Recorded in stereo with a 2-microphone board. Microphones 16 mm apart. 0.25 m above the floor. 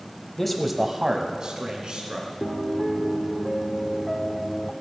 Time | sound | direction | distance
0.4 | a man speaking | 10° left (ahead or behind) | 0.9 m
2.4 | a piano | 5° left (ahead or behind) | 0.6 m